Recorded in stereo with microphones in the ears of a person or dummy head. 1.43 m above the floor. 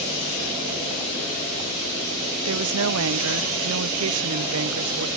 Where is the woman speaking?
80° right.